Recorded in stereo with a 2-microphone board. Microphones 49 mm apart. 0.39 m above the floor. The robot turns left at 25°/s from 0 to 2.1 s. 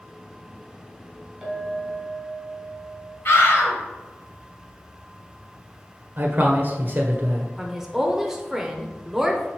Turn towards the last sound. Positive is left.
turn(degrees=-5)  # may be behind; listen again after turning